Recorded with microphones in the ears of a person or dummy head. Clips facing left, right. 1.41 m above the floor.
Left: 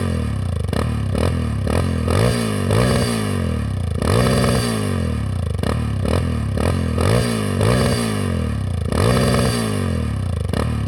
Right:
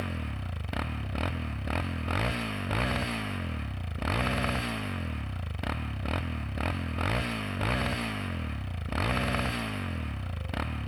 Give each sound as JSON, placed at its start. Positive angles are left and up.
{"t": 0.0, "sound": "a motorcycle", "side_deg": 75}